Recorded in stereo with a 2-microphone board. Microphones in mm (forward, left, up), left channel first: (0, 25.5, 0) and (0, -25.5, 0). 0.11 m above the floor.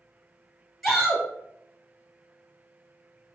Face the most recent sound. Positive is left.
turn(degrees=0)  # may be behind; listen again after turning